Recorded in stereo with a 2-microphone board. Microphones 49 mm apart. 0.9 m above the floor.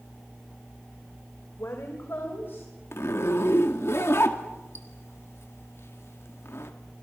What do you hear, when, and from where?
1.6 s a woman speaking: 65° left (ahead or behind), 3 m; by 2.7 s 50° left (ahead or behind), 4.5 m
2.9 s a zipper: 65° left (ahead or behind), 1.9 m